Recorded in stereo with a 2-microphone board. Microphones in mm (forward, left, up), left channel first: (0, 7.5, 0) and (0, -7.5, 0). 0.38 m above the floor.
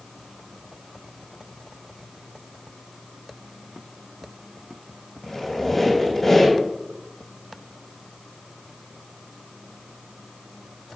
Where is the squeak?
20° left (ahead or behind), 4 m.